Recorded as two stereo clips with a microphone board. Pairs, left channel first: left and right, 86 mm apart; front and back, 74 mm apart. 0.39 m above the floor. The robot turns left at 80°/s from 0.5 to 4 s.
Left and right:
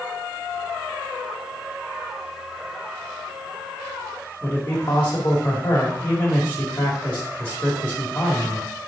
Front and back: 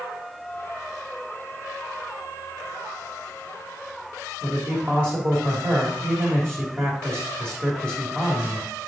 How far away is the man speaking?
About 1.8 m.